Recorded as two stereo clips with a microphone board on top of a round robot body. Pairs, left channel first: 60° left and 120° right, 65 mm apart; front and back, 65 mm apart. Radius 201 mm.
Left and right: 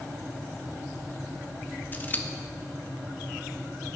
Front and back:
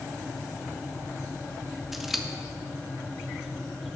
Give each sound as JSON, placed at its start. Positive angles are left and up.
{"t": 1.9, "sound": "scissors", "azimuth_deg": 95, "distance_m": 1.2}